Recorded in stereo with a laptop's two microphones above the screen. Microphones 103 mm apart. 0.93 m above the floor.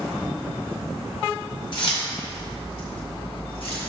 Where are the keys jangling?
55° left (ahead or behind), 2 m; by 3.9 s 65° left (ahead or behind), 4 m.